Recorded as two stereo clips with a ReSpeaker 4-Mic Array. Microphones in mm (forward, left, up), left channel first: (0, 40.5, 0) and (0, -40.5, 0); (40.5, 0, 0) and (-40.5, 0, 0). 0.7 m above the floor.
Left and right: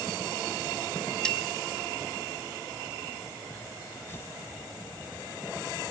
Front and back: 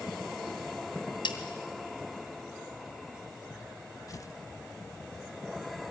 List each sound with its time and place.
1.2 s a snare drum: 10° left, 1.9 m
4.1 s tearing paper: 35° left, 0.7 m